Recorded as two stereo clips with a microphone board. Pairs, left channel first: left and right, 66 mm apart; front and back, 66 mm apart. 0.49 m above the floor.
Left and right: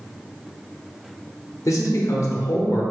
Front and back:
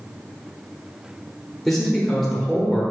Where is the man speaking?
85° left, 1.1 m.